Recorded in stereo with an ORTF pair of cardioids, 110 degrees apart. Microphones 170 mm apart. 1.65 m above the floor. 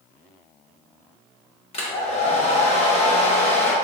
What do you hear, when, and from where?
1.7 s a hair dryer: 35° left, 1.2 m